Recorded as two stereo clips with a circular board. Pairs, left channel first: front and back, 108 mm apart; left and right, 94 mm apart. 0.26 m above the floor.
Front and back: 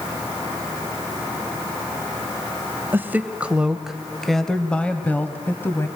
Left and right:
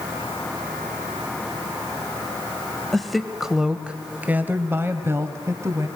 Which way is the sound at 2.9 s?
170° left.